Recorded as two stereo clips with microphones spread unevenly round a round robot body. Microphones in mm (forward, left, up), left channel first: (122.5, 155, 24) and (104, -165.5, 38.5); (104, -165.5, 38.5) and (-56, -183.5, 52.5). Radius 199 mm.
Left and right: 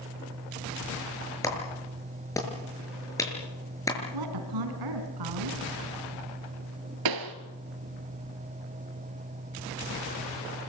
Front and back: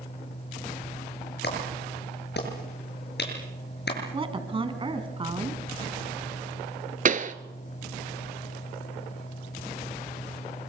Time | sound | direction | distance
1.4 | a clap | 5° left | 6.5 m
4.1 | a woman speaking | 115° right | 4 m
7.0 | a pop | 135° right | 1.2 m